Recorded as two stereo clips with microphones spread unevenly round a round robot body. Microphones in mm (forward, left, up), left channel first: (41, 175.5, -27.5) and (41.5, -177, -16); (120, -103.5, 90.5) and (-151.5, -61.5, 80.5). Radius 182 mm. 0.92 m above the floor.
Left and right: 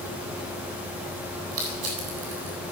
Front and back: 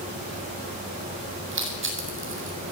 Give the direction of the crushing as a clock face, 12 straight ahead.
5 o'clock.